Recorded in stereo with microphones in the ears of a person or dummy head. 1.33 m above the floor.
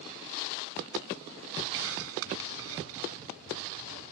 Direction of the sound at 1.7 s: 75° right (ahead or behind).